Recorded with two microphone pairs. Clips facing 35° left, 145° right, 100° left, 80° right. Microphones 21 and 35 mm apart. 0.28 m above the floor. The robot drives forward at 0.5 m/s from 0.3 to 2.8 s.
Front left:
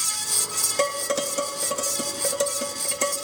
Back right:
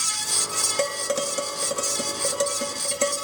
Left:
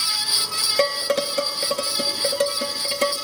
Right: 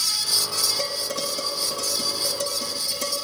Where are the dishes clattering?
120° left, 2.5 m; by 3.1 s 135° left, 3.5 m.